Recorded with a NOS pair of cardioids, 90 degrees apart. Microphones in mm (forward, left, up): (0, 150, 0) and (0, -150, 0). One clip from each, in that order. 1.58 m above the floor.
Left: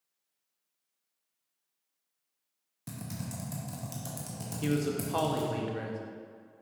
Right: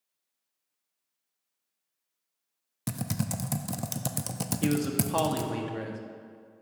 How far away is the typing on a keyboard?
About 0.6 m.